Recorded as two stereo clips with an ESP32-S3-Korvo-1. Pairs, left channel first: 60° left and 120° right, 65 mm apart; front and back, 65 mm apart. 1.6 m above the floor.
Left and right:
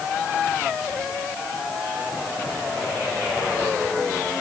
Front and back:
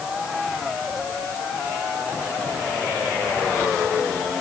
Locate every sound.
Only background noise.